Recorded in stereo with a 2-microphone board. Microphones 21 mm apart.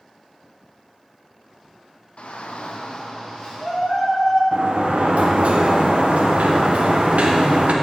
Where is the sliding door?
75° right (ahead or behind), 0.8 m.